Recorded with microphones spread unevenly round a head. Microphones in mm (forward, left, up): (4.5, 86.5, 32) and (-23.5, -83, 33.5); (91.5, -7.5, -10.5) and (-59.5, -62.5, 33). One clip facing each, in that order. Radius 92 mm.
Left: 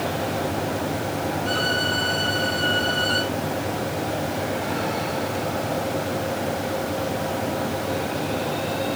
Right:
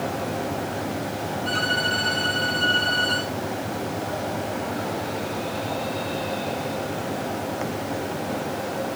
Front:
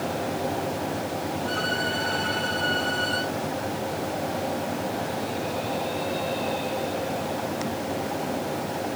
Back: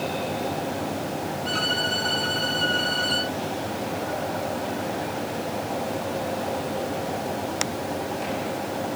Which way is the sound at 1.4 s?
160° right.